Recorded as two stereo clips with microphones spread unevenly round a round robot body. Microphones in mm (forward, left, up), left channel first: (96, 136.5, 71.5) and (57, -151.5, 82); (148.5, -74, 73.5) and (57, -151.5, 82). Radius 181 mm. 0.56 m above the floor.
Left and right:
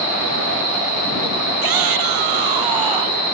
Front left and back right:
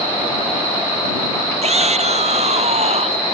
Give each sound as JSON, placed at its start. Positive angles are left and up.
{"t": 1.6, "sound": "a shout", "azimuth_deg": -110}